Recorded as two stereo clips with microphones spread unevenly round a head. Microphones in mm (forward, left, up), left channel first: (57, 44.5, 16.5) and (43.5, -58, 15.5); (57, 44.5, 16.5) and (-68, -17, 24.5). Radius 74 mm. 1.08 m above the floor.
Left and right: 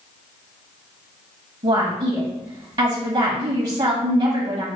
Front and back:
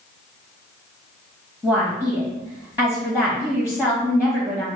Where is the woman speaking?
75° right, 1.2 m.